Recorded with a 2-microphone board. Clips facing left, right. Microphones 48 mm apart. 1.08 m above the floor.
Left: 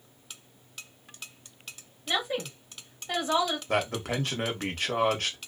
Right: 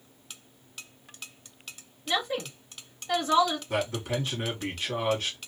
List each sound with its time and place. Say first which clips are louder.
2.1 s a woman speaking: right 1 dB; 5° left (ahead or behind), 1.7 m
3.7 s a man speaking: left 1 dB; 55° left (ahead or behind), 1.3 m